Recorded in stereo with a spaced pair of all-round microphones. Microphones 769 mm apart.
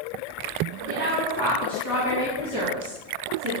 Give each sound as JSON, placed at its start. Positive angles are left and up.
{"t": 0.9, "sound": "a woman speaking", "side_deg": -15, "distance_m": 1.0}